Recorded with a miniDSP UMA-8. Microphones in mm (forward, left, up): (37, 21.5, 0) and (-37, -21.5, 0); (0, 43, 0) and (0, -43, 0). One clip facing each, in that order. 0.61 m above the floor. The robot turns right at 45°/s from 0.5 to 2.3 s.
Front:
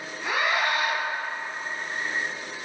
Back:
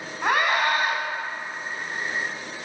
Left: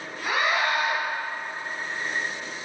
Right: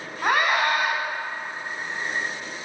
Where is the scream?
120° right, 4 m; by 0.9 s 100° right, 4 m.